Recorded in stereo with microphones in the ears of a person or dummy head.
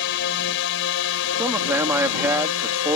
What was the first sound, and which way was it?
A drone, 70° left (ahead or behind).